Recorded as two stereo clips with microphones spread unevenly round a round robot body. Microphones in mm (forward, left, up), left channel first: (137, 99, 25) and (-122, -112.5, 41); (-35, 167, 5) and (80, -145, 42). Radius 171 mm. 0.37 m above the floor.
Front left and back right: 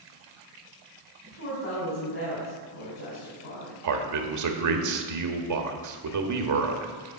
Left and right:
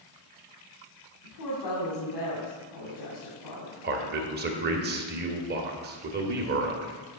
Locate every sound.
1.2 s a woman speaking: 90° left, 3.5 m
3.8 s a man speaking: 130° right, 1.4 m